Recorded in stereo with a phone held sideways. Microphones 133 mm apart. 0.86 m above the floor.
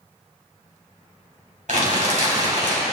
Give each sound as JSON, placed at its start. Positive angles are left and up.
{"t": 1.7, "sound": "crumpling", "side_deg": -70, "distance_m": 2.5}